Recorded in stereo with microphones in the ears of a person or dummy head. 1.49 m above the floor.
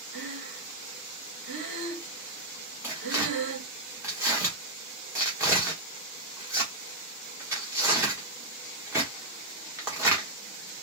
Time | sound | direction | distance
0.1 | breathing | 60° right (ahead or behind) | 1.3 m
2.8 | tearing paper | 15° right (ahead or behind) | 1.1 m